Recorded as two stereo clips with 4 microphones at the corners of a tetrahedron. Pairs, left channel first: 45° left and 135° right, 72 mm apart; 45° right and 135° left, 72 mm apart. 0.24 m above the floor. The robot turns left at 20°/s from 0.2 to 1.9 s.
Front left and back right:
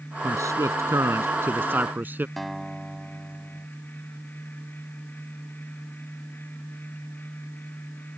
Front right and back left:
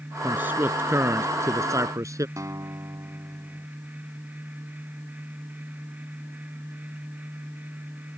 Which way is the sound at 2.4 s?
135° left.